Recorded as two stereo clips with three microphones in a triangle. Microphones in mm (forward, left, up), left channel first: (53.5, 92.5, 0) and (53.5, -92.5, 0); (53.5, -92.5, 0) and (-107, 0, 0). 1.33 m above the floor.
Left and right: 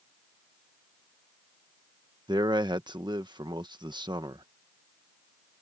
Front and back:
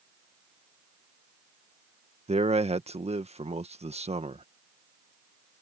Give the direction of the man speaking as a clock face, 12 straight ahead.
5 o'clock.